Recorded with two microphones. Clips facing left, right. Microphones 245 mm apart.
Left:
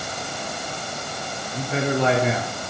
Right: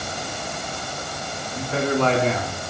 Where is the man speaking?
30° left (ahead or behind), 1.2 m; by 2.6 s 5° right (ahead or behind), 1.4 m.